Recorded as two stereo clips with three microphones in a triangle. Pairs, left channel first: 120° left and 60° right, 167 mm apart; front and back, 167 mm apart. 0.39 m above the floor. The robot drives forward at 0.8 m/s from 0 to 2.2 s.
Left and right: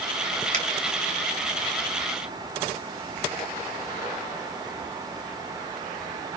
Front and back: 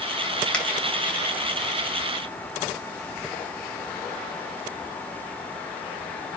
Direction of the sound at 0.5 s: 80° right.